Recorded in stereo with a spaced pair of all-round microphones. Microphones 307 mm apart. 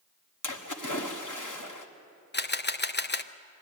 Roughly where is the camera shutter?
Left.